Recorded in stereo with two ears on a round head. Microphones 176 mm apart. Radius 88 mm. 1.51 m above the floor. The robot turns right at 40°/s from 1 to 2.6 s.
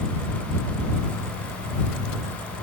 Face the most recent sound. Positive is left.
No sound to turn to.